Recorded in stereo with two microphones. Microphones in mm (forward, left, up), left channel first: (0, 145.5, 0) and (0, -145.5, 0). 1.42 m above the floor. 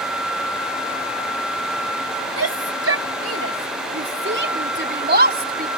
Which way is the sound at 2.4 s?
55° right (ahead or behind).